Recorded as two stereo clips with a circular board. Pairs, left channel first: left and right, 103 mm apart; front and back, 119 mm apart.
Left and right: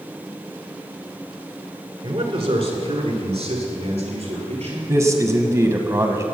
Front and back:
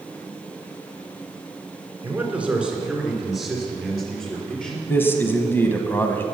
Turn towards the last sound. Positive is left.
turn(degrees=-60)